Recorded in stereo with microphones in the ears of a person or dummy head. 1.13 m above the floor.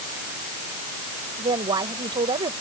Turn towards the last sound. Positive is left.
turn(degrees=-20)  # may be behind; listen again after turning